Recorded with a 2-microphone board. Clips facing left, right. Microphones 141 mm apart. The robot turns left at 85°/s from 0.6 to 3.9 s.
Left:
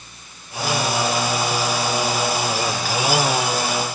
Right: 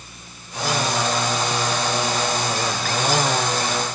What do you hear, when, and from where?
Only background noise.